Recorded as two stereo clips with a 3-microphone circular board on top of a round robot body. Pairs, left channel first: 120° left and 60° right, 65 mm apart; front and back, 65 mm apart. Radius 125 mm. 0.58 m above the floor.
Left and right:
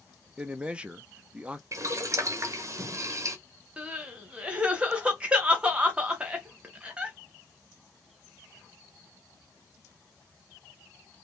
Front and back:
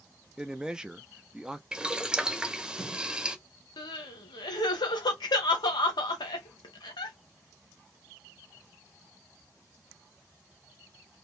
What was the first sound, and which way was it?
A man speaking, 115° right.